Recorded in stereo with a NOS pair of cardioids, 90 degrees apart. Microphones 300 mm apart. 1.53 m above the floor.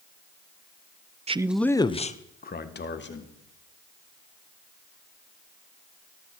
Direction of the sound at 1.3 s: 20° right.